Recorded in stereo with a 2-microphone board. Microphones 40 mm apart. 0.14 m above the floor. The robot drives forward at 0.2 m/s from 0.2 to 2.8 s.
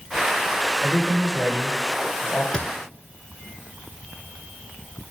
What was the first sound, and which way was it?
A man speaking, 65° left (ahead or behind).